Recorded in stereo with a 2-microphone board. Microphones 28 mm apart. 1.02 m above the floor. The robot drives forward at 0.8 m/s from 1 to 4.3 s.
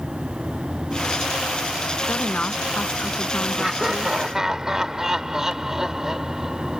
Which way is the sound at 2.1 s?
85° left.